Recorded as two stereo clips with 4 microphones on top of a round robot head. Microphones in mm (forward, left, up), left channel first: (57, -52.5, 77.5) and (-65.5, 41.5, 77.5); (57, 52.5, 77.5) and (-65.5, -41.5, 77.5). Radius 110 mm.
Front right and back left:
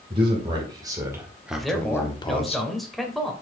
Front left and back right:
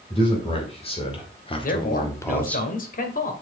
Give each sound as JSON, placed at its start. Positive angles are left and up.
{"t": 0.1, "sound": "a man speaking", "azimuth_deg": 90, "distance_m": 3.5}
{"t": 1.6, "sound": "a man speaking", "azimuth_deg": 50, "distance_m": 2.0}